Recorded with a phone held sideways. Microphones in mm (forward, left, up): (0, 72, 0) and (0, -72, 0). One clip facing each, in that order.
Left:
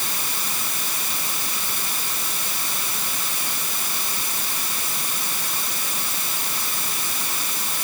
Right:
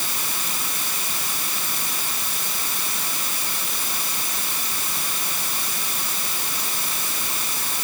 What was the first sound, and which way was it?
Only background noise.